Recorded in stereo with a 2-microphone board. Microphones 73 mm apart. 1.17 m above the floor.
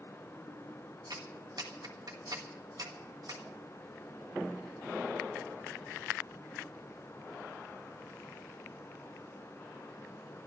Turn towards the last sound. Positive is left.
turn(degrees=-65)  # may be behind; listen again after turning